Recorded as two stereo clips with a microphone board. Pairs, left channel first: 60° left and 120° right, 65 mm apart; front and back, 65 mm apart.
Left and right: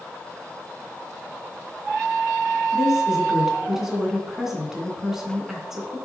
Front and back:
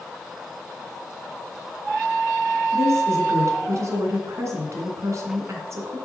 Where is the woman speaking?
160° left, 2.5 m.